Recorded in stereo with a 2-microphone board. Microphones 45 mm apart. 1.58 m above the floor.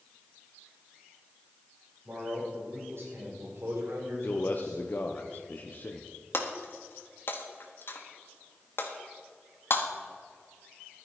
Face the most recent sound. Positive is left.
turn(degrees=55)  # may be behind; listen again after turning